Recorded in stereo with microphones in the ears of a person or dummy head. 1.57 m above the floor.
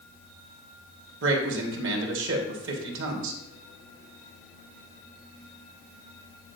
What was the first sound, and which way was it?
A man speaking, 65° right (ahead or behind).